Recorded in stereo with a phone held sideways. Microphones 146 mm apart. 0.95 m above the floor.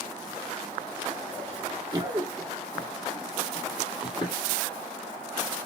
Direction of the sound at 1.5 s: 40° right (ahead or behind).